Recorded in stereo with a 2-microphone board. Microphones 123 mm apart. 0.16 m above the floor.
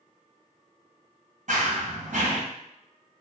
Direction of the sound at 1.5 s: 75° right (ahead or behind).